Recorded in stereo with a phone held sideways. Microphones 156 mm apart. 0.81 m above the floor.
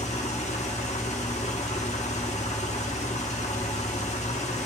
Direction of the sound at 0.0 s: 45° left (ahead or behind).